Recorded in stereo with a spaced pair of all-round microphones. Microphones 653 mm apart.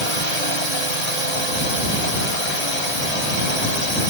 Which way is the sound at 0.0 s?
70° left (ahead or behind).